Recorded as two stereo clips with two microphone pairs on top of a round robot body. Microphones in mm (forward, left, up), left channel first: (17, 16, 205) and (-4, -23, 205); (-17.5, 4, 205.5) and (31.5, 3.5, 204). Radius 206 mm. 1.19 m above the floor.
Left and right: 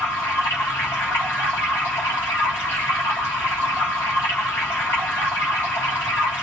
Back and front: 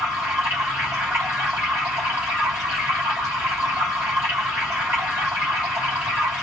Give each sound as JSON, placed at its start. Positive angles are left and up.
{"t": 0.0, "sound": "running water", "azimuth_deg": 50, "distance_m": 0.8}